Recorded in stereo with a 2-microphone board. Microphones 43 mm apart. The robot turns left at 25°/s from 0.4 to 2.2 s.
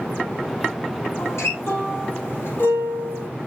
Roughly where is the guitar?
Left.